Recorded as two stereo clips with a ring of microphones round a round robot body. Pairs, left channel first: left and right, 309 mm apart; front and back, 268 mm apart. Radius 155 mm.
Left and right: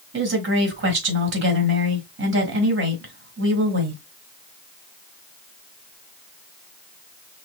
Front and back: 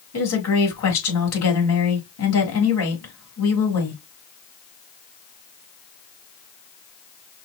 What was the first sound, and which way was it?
A woman speaking, 40° right.